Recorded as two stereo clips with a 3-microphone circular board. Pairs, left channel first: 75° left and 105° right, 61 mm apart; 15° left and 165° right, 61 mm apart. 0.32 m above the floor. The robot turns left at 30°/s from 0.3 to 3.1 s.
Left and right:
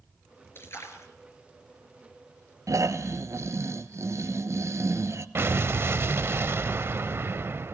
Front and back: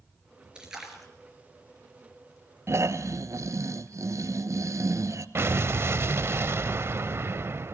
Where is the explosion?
135° right, 0.5 m.